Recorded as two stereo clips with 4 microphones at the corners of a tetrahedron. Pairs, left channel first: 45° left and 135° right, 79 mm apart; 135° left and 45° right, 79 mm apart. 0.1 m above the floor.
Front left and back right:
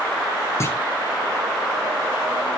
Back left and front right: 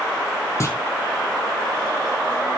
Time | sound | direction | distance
0.6 | a clunk | 95° left | 2.5 m